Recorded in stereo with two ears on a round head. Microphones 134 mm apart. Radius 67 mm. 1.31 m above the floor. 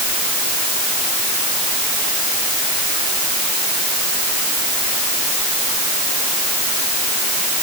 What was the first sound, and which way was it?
Only background noise.